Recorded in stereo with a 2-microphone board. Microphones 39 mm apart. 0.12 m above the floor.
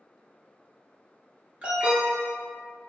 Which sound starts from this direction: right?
An alarm, at 1.6 s.